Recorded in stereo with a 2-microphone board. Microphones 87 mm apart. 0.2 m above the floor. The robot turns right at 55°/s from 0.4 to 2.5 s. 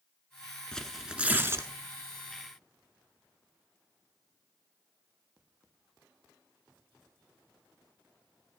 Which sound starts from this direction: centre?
Tearing paper, at 0.7 s.